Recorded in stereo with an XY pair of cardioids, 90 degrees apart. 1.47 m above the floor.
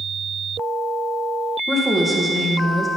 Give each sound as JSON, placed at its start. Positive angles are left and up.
{"t": 1.7, "sound": "a woman speaking", "azimuth_deg": 10, "distance_m": 1.4}